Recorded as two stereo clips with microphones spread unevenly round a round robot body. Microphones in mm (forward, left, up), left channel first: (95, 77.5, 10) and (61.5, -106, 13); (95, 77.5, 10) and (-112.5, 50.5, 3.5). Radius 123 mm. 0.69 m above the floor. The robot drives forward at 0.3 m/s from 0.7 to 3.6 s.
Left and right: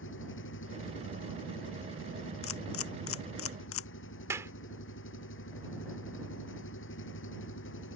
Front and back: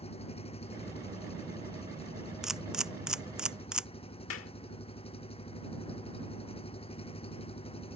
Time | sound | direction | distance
0.0 | an engine running | 70° left | ?
2.4 | a camera shutter | 100° left | ?
4.3 | a clap | 25° right | ?